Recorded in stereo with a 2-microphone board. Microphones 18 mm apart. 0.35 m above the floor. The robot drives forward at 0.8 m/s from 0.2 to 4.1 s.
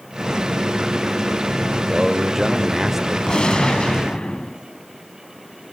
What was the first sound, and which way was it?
A man speaking, 15° right (ahead or behind).